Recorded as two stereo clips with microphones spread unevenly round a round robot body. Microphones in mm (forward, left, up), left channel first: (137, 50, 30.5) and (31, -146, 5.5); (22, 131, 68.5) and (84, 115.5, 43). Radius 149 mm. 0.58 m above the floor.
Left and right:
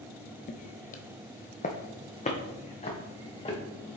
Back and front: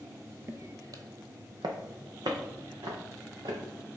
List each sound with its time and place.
0.5 s footsteps: 45° left, 0.7 m; by 3.6 s straight ahead, 3 m